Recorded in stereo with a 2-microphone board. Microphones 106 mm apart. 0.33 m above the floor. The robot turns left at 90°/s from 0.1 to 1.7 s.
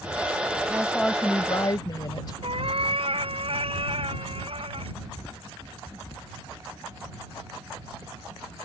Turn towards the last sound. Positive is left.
turn(degrees=-60)  # may be behind; listen again after turning